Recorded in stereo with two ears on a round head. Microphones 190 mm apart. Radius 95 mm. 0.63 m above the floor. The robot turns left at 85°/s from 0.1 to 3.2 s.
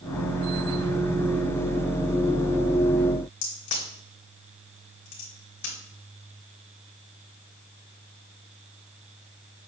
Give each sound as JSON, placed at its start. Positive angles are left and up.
{"t": 3.4, "sound": "a crack", "side_deg": 60, "distance_m": 3.0}